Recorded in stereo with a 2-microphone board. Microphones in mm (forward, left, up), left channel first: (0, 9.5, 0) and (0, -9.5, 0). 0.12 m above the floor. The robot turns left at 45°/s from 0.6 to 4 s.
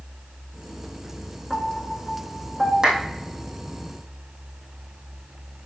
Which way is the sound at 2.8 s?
35° right (ahead or behind).